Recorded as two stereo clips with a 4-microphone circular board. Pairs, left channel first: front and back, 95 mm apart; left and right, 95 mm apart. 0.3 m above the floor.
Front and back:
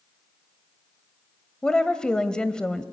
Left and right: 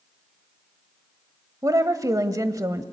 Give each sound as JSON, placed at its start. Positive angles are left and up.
{"t": 1.6, "sound": "a woman speaking", "azimuth_deg": -75, "distance_m": 1.1}